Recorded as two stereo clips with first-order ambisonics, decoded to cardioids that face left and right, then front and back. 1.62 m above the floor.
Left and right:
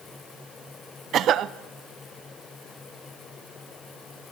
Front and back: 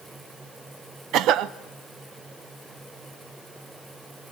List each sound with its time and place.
1.1 s a cough: 140° right, 0.9 m